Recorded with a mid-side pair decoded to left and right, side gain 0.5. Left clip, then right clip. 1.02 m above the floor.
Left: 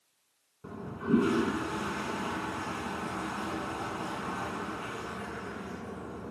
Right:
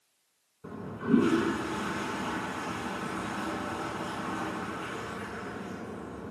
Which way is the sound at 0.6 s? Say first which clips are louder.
Right 1 dB; straight ahead.